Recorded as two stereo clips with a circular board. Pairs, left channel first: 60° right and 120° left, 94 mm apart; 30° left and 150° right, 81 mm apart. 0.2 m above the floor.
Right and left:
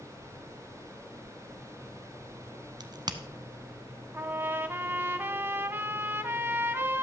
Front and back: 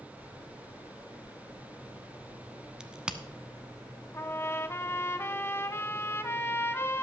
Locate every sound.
2.8 s a crack: 130° left, 0.7 m
4.1 s a trumpet: 65° left, 0.6 m